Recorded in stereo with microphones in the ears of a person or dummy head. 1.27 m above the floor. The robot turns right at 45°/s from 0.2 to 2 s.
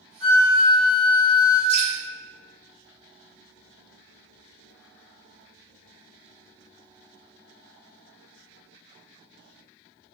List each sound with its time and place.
0.2 s a flute: 55° right, 1.8 m; by 1.6 s 10° left, 1.8 m
1.7 s dripping: 70° left (ahead or behind), 1.3 m; by 1.9 s 75° left (ahead or behind), 1.3 m